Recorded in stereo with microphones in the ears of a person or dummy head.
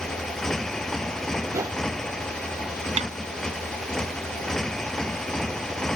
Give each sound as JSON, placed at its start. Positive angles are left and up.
{"t": 0.0, "sound": "a motorcycle", "side_deg": 5}
{"t": 1.5, "sound": "a whoosh", "side_deg": -15}
{"t": 3.0, "sound": "a snare drum", "side_deg": -35}